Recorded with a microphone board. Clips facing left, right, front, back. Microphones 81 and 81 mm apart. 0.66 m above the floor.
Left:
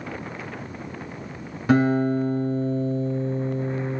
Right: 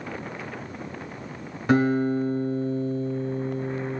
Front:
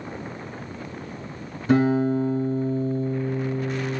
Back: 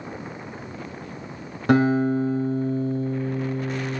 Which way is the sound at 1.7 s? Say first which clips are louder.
Left 2 dB, back 1 dB; 175° left.